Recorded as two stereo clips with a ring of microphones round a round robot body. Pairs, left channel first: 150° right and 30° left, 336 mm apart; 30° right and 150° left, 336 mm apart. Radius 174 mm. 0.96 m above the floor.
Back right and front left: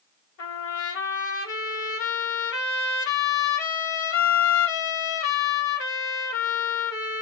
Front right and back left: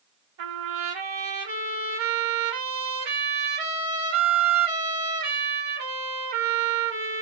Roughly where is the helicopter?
I don't hear a helicopter.